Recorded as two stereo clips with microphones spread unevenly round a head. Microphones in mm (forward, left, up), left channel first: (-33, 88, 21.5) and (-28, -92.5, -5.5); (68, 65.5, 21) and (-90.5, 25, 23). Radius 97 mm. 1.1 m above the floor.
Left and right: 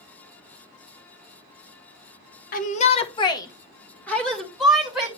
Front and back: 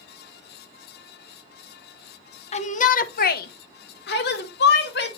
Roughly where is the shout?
Ahead left.